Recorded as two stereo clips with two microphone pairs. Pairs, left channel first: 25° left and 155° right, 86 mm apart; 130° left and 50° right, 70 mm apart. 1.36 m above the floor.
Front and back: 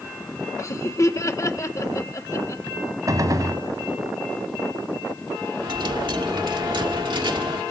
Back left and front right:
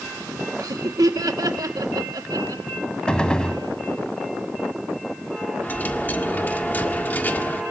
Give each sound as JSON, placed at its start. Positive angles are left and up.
{"t": 0.6, "sound": "laughter", "azimuth_deg": -30, "distance_m": 1.7}
{"t": 3.1, "sound": "a gunshot", "azimuth_deg": -165, "distance_m": 1.6}
{"t": 5.6, "sound": "a dropped coin", "azimuth_deg": -175, "distance_m": 1.8}